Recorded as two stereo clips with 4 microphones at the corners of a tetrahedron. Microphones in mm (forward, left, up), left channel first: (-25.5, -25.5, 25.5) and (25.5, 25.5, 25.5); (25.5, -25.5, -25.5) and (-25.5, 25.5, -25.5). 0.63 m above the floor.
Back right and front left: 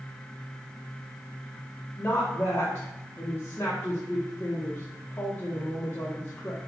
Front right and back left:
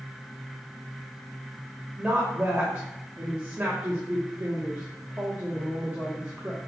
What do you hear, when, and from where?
2.0 s a woman speaking: 175° right, 0.7 m